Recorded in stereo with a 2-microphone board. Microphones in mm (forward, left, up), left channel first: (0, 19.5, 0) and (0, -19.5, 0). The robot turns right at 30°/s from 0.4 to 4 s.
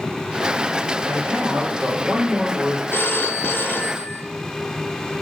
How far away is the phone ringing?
About 0.8 m.